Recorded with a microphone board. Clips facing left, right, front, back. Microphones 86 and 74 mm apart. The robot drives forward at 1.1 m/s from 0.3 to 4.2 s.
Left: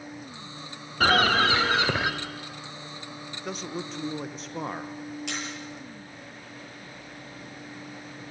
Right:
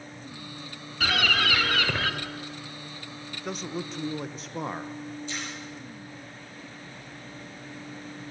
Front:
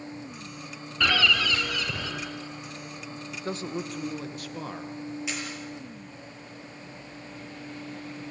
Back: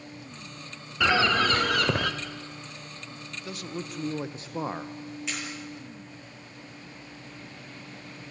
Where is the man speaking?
Straight ahead, 0.9 m; by 4.9 s straight behind, 0.7 m.